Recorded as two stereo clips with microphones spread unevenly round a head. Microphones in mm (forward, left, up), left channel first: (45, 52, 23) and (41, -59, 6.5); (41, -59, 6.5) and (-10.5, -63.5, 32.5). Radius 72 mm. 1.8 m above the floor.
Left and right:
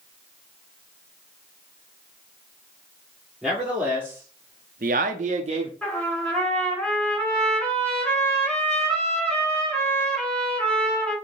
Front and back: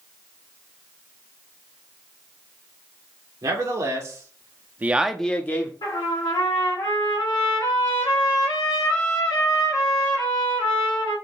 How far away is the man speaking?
About 1.7 m.